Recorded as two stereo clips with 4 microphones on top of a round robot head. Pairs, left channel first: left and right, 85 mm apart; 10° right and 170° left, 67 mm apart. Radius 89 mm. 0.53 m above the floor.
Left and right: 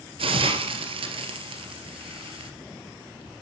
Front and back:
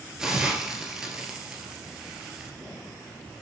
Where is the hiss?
105° right, 2 m.